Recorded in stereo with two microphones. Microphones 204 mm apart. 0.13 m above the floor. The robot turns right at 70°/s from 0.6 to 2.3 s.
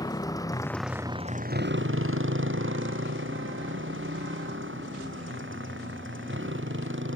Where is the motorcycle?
20° left (ahead or behind); by 7.2 s 70° right (ahead or behind).